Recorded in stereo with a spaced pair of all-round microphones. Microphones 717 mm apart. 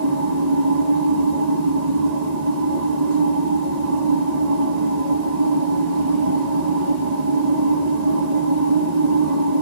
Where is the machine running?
65° right (ahead or behind), 1.4 m.